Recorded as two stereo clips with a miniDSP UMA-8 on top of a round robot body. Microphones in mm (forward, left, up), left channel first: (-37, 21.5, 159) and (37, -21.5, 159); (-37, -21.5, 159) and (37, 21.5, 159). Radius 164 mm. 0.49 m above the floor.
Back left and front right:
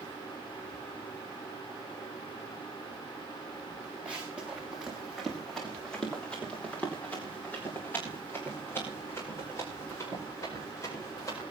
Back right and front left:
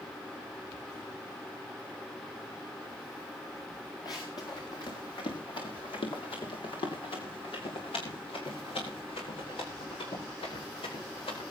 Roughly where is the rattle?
I don't hear a rattle.